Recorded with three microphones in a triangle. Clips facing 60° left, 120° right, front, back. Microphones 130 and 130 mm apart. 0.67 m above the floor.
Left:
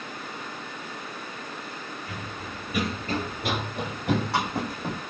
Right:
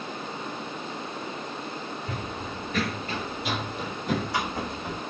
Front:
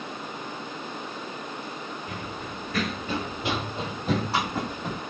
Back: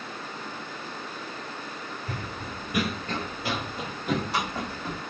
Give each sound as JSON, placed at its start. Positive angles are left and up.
{"t": 2.1, "sound": "running footsteps", "azimuth_deg": -155, "distance_m": 1.0}